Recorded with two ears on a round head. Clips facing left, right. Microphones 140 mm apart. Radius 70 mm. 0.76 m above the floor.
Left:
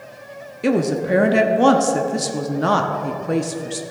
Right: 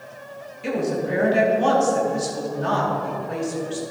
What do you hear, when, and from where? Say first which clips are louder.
0.6 s a woman speaking: left 5 dB; 65° left (ahead or behind), 0.9 m